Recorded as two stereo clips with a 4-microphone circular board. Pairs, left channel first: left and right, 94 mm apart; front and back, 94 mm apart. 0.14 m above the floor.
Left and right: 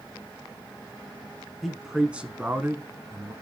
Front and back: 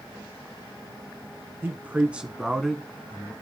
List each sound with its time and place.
1.6 s a man speaking: straight behind, 1.1 m; by 3.3 s 60° right, 1.3 m